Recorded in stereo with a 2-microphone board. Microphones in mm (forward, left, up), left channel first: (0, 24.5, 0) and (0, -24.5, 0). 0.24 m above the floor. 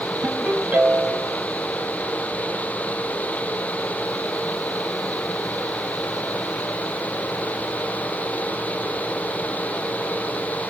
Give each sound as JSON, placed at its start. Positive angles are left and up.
{"t": 0.2, "sound": "a ringtone", "side_deg": -35, "distance_m": 5.0}